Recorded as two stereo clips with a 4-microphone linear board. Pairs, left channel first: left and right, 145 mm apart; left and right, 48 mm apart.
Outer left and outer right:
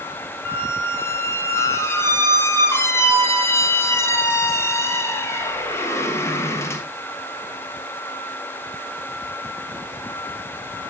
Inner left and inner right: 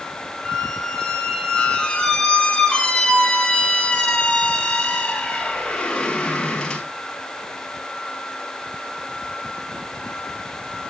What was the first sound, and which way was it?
A squeak, 15° left (ahead or behind).